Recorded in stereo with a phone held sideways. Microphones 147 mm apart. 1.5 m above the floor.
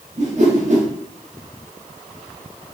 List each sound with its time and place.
0.2 s a whoosh: 50° right (ahead or behind), 1.0 m